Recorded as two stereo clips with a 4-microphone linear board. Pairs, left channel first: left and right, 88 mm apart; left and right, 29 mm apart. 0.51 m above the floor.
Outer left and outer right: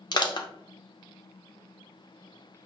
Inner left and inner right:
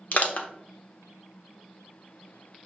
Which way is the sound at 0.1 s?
50° left (ahead or behind).